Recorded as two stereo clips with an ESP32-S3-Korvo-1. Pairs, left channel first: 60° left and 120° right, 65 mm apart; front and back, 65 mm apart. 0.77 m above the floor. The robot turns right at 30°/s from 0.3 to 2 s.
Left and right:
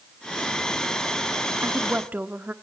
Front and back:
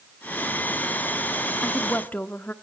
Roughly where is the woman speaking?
Right.